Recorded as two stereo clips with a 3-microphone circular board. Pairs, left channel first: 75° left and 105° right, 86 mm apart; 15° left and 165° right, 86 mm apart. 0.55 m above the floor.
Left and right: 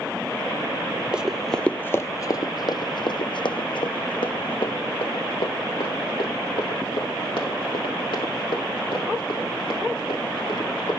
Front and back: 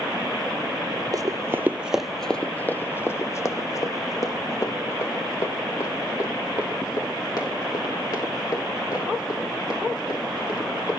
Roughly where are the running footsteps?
Behind.